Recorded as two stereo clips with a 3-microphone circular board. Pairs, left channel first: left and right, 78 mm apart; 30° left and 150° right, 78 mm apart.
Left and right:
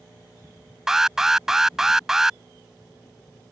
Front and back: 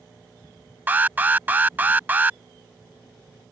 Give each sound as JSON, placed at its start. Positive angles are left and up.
{"t": 0.9, "sound": "an alarm", "azimuth_deg": -165}